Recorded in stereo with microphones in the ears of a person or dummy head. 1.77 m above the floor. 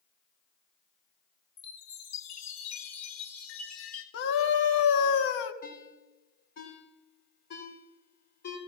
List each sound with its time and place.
1.6 s a chime: 70° left (ahead or behind), 1.5 m
4.1 s a scream: 60° left (ahead or behind), 1.6 m
5.6 s a ringtone: 50° left (ahead or behind), 3.5 m